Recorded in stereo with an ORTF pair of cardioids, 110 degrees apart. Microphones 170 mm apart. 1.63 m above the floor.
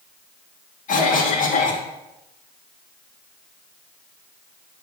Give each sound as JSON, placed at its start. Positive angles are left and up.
{"t": 0.9, "sound": "a cough", "azimuth_deg": 50, "distance_m": 2.5}